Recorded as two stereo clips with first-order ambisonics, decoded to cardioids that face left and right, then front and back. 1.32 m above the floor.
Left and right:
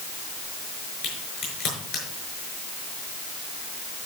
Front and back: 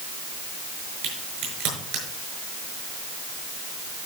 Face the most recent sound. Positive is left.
turn(degrees=135)